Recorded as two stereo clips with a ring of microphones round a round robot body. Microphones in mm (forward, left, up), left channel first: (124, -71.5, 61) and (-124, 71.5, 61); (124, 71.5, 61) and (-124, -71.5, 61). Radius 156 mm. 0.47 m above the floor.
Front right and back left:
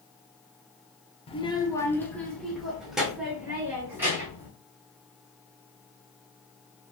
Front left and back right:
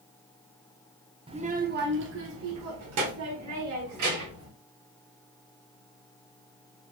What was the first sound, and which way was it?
A child speaking, 90° right.